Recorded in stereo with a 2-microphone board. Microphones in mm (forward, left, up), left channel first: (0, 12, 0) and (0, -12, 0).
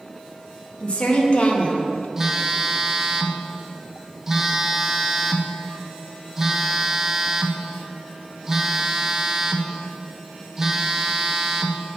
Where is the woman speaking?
50° left (ahead or behind), 1.5 m; by 2.1 s 45° left (ahead or behind), 0.7 m.